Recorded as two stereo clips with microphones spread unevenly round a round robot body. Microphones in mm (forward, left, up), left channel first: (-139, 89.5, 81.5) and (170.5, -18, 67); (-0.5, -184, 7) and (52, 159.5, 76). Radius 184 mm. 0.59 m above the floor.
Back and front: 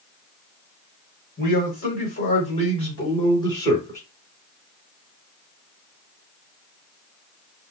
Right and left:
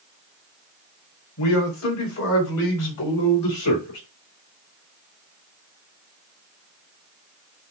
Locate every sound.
1.4 s a man speaking: 140° right, 3.5 m; by 4.0 s 115° right, 3.5 m